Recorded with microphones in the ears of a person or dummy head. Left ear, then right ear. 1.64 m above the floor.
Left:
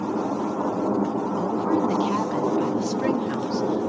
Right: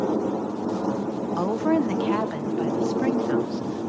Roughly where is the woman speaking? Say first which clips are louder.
Right 2 dB; right.